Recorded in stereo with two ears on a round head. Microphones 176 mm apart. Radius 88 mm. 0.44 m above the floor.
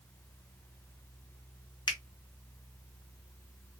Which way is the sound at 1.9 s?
25° left (ahead or behind).